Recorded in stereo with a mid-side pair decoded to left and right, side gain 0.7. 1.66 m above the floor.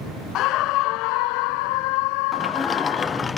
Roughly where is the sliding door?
Ahead.